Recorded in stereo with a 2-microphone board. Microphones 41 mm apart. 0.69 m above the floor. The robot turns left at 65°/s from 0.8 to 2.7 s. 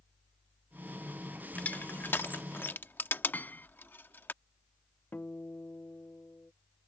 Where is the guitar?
50° left (ahead or behind).